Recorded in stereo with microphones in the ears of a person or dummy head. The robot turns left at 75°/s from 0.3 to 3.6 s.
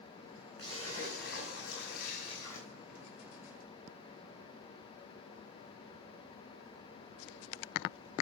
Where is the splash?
150° left, 7.5 m; by 2.7 s 5° right, 7.5 m.